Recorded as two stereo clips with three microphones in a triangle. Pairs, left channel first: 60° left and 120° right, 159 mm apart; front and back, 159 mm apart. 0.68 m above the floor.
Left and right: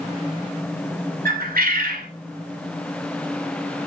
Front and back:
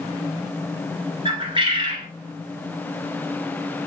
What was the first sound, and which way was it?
A bird, 125° right.